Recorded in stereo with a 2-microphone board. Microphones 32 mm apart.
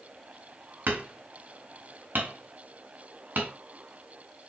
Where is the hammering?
80° right, 3.5 m.